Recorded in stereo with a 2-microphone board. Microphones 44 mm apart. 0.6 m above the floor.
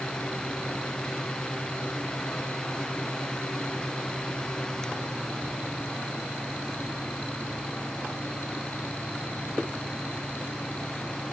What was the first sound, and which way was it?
Only background noise.